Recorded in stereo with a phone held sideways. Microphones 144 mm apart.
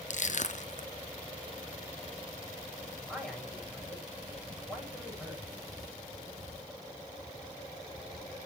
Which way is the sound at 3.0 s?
Centre (ahead or behind).